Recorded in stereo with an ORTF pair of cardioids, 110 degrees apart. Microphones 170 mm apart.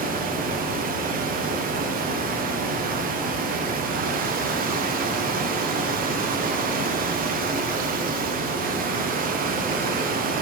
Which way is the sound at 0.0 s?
55° right.